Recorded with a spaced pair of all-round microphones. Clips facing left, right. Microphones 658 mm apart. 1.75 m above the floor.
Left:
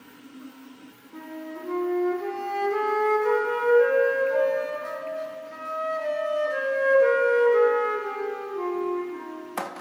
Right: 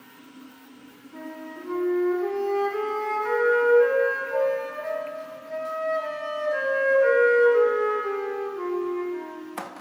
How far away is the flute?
About 0.8 m.